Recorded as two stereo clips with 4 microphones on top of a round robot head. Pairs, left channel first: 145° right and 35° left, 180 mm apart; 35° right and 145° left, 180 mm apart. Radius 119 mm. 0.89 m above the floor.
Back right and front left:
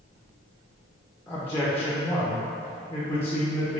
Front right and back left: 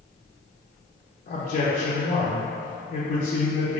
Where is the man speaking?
70° right, 0.8 m.